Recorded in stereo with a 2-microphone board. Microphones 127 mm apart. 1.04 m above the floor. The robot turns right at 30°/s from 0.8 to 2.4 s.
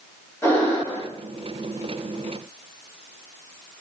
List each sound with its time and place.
0.4 s breathing: 20° left (ahead or behind), 1.3 m; by 1.0 s 15° left (ahead or behind), 1.3 m